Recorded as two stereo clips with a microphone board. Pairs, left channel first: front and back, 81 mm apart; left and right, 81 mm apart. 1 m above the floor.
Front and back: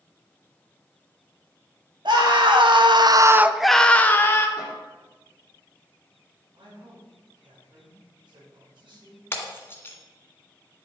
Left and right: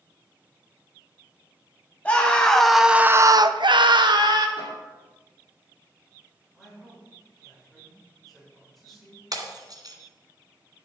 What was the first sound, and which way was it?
A scream, 165° left.